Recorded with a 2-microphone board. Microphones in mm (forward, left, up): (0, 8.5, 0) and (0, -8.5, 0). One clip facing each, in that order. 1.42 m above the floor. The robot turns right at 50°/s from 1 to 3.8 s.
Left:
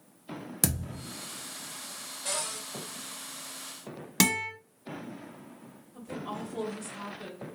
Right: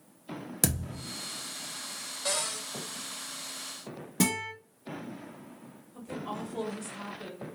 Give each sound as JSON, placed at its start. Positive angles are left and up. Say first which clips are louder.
{"t": 0.6, "sound": "a thud", "louder": "right 1 dB", "side_deg": -5, "distance_m": 0.8}
{"t": 2.2, "sound": "a cupboard door", "louder": "right 2 dB", "side_deg": -70, "distance_m": 1.5}
{"t": 4.2, "sound": "a guitar", "louder": "left 3 dB", "side_deg": 75, "distance_m": 1.3}
{"t": 5.9, "sound": "a woman speaking", "louder": "even", "side_deg": -10, "distance_m": 1.6}